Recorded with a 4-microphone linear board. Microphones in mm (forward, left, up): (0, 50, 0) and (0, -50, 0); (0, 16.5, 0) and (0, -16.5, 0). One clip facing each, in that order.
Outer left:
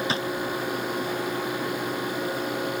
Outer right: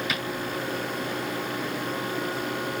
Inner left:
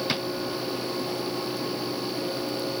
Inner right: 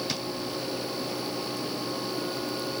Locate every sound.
0.1 s a drawer: 30° left (ahead or behind)